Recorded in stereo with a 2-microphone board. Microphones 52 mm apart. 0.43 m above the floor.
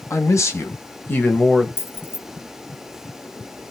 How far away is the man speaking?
About 2.5 m.